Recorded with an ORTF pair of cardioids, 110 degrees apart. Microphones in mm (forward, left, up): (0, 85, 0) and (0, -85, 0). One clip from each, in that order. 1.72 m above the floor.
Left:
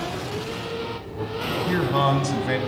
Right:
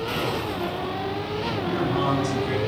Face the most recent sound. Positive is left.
turn(degrees=55)